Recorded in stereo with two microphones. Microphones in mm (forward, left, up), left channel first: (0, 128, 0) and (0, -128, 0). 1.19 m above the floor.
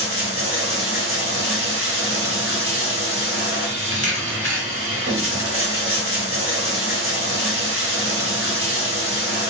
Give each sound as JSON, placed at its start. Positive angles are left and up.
{"t": 0.0, "sound": "running water", "side_deg": -55, "distance_m": 1.1}
{"t": 3.9, "sound": "a camera shutter", "side_deg": 65, "distance_m": 1.2}